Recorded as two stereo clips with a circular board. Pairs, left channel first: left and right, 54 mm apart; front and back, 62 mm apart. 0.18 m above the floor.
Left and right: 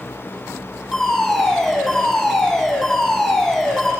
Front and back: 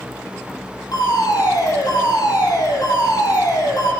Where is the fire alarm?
5° left, 9.5 m.